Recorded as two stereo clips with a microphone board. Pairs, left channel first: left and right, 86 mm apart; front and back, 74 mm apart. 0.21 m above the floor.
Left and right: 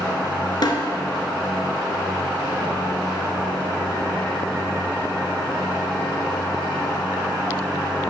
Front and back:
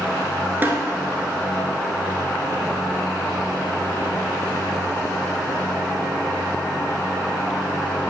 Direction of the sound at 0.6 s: 120° left.